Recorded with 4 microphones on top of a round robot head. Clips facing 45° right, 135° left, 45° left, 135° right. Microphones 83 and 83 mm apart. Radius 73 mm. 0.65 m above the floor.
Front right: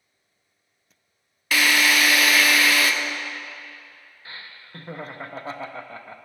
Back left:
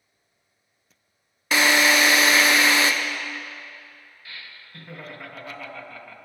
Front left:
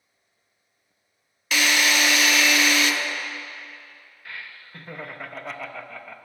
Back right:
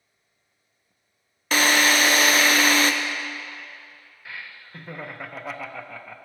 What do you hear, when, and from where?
1.5 s a drill: 165° right, 0.5 m
4.2 s laughter: 50° right, 0.5 m